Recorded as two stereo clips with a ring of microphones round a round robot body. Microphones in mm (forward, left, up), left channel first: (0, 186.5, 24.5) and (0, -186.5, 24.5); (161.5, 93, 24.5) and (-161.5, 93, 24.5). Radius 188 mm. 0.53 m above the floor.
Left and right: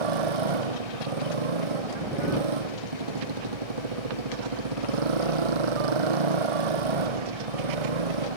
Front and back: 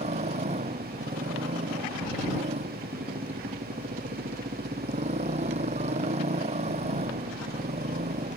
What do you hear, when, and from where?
0.0 s a motorcycle: 105° right